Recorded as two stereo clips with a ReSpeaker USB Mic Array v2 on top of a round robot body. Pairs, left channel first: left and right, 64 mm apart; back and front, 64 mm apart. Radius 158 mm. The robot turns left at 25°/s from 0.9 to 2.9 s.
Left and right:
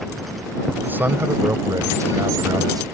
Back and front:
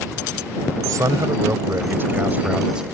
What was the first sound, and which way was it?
A man speaking, 30° right.